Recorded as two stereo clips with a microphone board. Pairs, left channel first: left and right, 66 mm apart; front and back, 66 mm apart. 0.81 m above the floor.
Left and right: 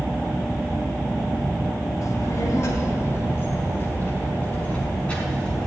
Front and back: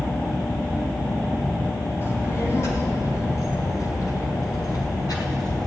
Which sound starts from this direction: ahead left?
A child speaking, at 2.0 s.